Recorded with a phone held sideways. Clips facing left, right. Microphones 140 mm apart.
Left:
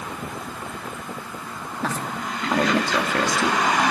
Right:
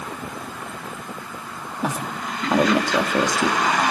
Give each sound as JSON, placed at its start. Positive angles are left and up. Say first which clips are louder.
{"t": 1.8, "sound": "a woman speaking", "louder": "right 1 dB", "side_deg": -15, "distance_m": 2.0}